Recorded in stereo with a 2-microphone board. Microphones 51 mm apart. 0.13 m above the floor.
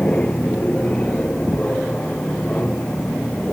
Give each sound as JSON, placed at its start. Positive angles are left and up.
{"t": 0.0, "sound": "an aircraft", "side_deg": 30}